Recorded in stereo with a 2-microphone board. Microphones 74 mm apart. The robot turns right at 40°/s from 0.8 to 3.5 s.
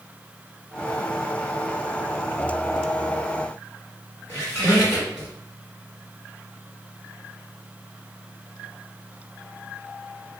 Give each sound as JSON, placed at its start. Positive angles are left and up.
{"t": 4.3, "sound": "a squeak", "side_deg": 30, "distance_m": 1.5}